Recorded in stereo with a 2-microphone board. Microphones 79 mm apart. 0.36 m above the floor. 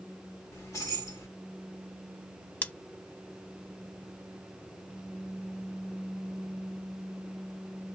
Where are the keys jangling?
45° left (ahead or behind), 1.3 m.